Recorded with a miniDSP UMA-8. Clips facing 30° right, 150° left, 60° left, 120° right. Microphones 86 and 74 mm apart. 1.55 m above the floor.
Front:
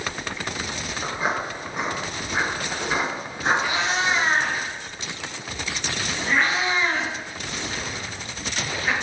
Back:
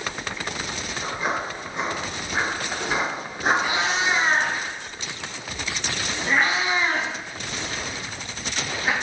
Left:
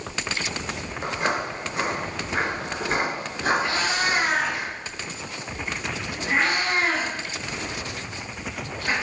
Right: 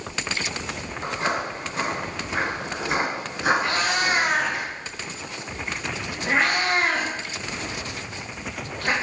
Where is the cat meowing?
140° right, 1.2 m.